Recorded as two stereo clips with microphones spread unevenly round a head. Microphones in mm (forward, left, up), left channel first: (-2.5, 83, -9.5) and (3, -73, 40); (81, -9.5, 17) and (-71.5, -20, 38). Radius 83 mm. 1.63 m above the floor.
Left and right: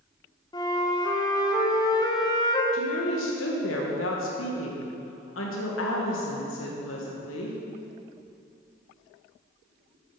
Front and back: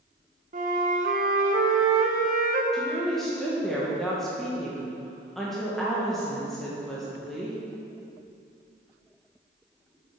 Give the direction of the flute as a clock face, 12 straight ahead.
6 o'clock.